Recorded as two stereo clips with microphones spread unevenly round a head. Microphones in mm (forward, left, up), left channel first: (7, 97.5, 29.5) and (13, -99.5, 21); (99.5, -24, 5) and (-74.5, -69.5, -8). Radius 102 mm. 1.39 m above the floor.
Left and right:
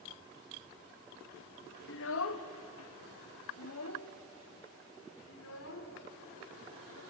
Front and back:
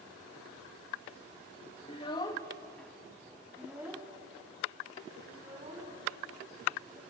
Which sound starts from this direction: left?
A child speaking, at 1.9 s.